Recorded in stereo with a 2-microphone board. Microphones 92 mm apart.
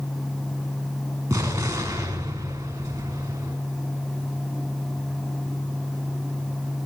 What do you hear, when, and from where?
1.3 s an explosion: 30° right (ahead or behind), 5.5 m